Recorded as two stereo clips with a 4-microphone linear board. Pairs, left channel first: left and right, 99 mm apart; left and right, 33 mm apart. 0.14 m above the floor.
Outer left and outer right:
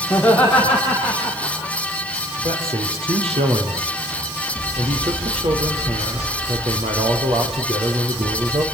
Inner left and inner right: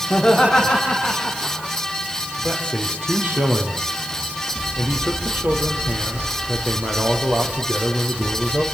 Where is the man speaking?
75° right (ahead or behind), 4.5 m.